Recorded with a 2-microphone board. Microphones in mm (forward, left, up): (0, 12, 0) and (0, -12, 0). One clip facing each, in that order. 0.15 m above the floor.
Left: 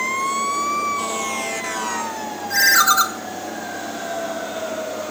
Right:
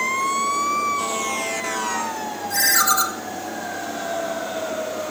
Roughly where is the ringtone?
Left.